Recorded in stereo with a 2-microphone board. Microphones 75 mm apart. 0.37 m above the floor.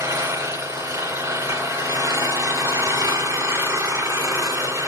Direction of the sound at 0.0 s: 45° right (ahead or behind).